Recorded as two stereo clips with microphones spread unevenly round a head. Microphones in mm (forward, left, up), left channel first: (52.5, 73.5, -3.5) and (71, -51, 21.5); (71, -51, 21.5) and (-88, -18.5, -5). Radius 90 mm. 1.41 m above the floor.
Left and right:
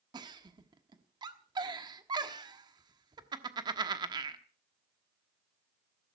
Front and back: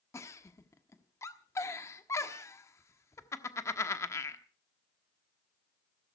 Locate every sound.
0.1 s a giggle: 65° right, 1.1 m